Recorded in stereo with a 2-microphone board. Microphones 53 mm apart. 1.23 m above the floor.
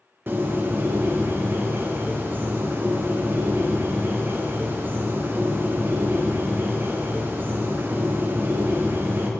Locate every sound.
0.3 s a bird: 40° right (ahead or behind), 0.6 m